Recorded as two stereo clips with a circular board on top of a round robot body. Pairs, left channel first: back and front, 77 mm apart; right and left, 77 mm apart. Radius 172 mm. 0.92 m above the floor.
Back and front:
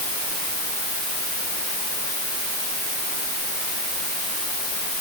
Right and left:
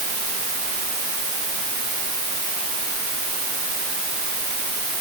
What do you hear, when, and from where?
Only background noise.